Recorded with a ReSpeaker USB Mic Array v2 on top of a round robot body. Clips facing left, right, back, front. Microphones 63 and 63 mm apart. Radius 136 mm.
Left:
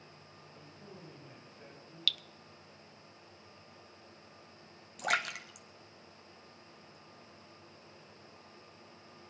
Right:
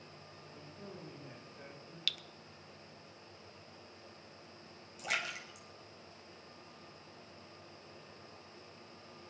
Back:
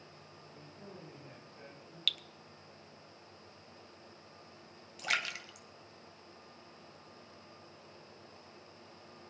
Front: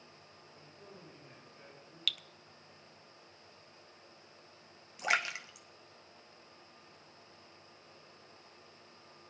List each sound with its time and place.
0.5 s a man speaking: 125° right, 9 m; by 2.0 s 130° right, 8.5 m
2.1 s dripping: 85° right, 0.6 m
5.0 s a splash: 65° left, 0.9 m